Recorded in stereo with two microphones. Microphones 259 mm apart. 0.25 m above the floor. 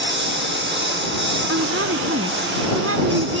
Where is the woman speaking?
60° right (ahead or behind).